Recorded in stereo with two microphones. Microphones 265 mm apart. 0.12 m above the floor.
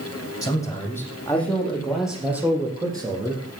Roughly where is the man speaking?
Centre.